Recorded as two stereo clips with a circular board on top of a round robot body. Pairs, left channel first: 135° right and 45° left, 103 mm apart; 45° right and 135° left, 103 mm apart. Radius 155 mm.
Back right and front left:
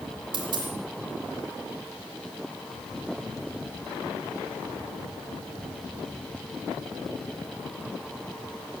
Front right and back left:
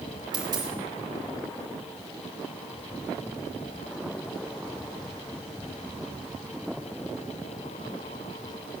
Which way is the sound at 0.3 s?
85° left.